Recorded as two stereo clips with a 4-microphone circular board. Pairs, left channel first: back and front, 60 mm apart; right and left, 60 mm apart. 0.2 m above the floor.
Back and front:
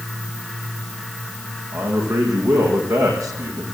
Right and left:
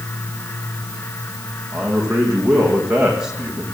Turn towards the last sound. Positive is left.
turn(degrees=15)